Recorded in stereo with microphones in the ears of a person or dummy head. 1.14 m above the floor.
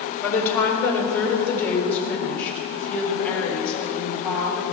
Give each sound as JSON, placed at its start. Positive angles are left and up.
{"t": 0.2, "sound": "a woman speaking", "side_deg": 20, "distance_m": 7.0}